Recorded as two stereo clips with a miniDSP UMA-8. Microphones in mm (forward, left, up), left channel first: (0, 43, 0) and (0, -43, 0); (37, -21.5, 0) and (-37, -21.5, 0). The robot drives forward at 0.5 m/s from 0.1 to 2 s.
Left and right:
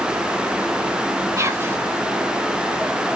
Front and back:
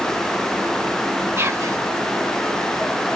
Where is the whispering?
130° right, 0.7 m; by 1.8 s 145° right, 0.8 m.